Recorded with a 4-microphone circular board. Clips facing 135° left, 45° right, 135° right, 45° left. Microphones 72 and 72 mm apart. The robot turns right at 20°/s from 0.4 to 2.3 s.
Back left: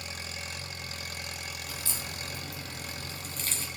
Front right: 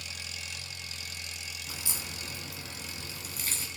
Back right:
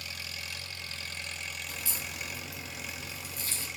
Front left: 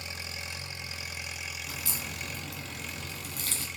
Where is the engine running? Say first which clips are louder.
Back left 3 dB, front left 2 dB; 100° left, 0.8 m; by 3.8 s 140° left, 0.8 m.